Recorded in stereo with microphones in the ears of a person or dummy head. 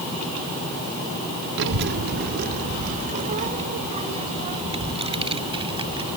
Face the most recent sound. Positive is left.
turn(degrees=-30)  # may be behind; listen again after turning